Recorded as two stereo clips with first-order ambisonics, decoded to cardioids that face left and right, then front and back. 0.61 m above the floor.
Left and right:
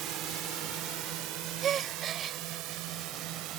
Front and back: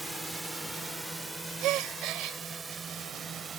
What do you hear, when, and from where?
0.0 s a drone: 95° right; by 3.6 s 110° right
1.6 s a gasp: 145° right